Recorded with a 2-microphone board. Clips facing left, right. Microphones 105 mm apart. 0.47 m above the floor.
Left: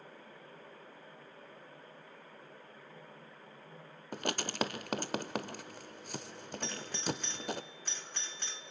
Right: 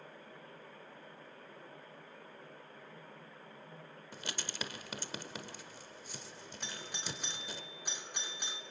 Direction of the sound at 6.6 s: 15° right (ahead or behind).